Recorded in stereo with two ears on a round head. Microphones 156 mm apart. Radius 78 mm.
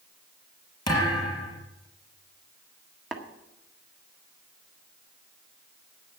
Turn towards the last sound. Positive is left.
turn(degrees=0)  # may be behind; listen again after turning